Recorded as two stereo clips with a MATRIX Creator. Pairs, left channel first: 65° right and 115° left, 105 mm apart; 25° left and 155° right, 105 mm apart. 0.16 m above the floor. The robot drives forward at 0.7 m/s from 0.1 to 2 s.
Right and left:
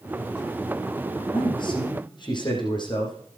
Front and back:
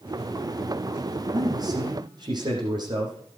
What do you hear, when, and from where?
1.3 s a man speaking: 110° right, 7.5 m